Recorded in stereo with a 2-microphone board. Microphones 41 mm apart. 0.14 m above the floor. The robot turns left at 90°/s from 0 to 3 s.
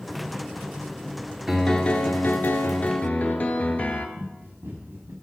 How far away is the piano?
About 1.2 m.